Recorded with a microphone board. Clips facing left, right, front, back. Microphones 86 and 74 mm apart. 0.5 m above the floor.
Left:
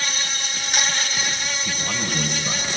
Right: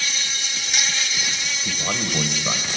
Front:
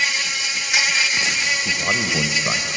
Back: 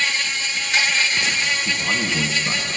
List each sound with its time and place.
0.0 s an insect: 75° left, 1.3 m
1.6 s a man speaking: 45° right, 1.9 m